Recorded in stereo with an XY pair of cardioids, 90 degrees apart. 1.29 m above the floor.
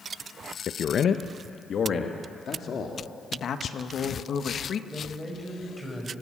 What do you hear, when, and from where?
0.7 s a man speaking: 65° left, 0.7 m; by 3.0 s 55° left, 2.5 m
3.3 s a woman speaking: 60° left, 1.8 m
4.9 s a man speaking: 5° left, 7 m